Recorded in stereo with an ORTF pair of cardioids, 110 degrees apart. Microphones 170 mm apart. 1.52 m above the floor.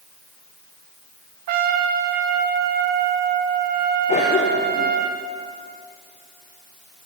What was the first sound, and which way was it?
A trumpet, 70° right.